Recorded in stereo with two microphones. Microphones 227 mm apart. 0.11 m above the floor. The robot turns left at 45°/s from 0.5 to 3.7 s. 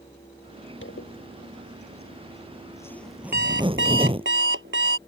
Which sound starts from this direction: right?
An alarm clock, at 3.3 s.